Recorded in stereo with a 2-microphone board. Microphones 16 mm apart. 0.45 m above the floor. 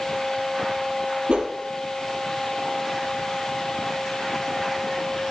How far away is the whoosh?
About 3 m.